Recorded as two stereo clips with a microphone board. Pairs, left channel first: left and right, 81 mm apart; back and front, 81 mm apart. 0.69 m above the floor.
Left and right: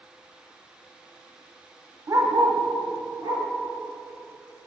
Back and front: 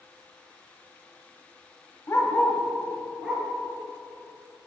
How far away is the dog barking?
About 0.8 m.